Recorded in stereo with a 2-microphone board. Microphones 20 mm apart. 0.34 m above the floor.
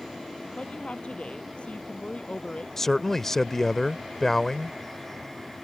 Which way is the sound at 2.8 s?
20° left (ahead or behind).